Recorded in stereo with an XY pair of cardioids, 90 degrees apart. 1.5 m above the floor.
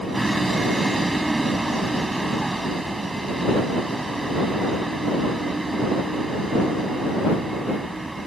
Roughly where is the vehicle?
Ahead.